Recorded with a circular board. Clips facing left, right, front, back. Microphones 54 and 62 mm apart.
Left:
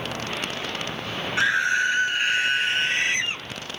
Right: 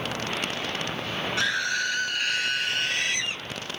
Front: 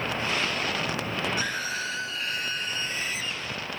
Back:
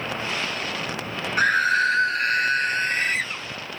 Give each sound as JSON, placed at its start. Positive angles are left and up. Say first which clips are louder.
{"t": 1.4, "sound": "a scream", "louder": "left 7 dB, back 11 dB", "azimuth_deg": 155}